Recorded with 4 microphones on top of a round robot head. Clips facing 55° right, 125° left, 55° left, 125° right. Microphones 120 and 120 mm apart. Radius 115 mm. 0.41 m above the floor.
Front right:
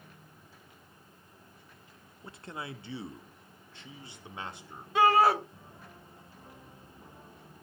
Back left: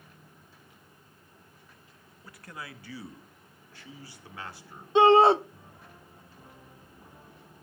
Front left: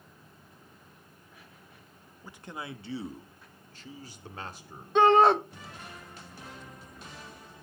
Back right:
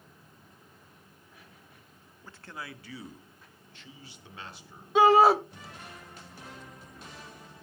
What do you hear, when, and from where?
2.2 s a man speaking: 15° right, 0.8 m; by 4.8 s 15° left, 1.9 m
5.0 s a shout: 155° left, 0.9 m